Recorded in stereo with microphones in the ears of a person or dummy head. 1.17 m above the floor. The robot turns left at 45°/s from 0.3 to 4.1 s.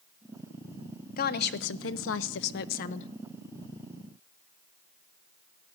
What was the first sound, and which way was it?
A woman speaking, 130° left.